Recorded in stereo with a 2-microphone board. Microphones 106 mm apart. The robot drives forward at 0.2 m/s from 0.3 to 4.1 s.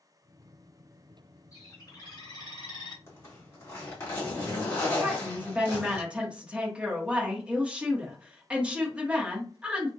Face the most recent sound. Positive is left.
turn(degrees=-10)  # may be behind; listen again after turning